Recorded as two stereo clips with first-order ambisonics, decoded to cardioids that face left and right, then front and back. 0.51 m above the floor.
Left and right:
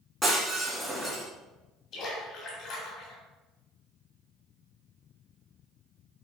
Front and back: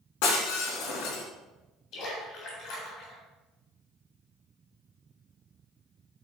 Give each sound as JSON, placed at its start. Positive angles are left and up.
{"t": 0.2, "sound": "breaking glass", "azimuth_deg": 0, "distance_m": 3.0}
{"t": 1.9, "sound": "a splash", "azimuth_deg": 40, "distance_m": 3.5}